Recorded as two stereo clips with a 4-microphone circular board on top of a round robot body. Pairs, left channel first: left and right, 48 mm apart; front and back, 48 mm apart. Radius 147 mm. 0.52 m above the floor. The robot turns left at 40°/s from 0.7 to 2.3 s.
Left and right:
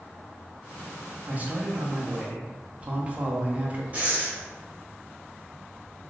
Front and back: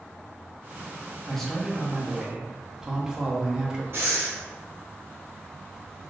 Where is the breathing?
145° right, 0.8 m.